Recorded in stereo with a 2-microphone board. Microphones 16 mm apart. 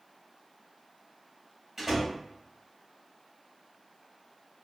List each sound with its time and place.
1.8 s a door slam: 30° right (ahead or behind), 0.9 m